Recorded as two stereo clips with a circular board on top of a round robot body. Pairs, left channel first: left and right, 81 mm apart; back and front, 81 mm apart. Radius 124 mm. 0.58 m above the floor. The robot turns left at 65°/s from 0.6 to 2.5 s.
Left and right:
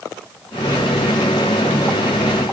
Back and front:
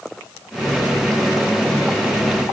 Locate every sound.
Only background noise.